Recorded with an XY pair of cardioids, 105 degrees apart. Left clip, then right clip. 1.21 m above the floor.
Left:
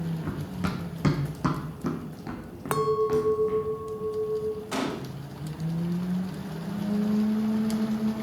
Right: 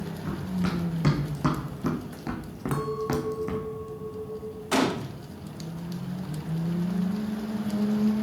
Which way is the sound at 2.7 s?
50° left.